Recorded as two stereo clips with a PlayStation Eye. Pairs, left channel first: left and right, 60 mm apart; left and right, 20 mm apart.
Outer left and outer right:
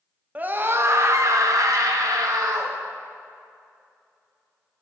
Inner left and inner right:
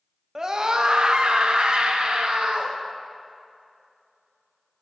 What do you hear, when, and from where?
0.3 s a scream: 25° right (ahead or behind), 0.9 m; by 2.8 s 80° right, 2.0 m